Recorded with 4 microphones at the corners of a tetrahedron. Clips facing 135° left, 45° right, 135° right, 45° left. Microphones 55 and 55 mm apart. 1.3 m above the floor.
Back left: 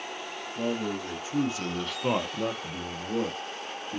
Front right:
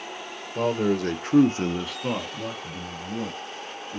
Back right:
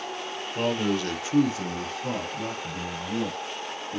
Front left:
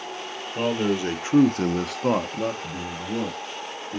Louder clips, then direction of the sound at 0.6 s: Front right 7 dB, front left 2 dB; 40° right.